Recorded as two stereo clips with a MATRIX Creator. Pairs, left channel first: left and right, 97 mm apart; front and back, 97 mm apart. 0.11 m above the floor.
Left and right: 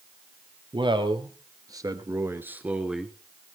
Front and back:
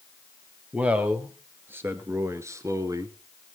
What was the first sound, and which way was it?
A man speaking, 105° right.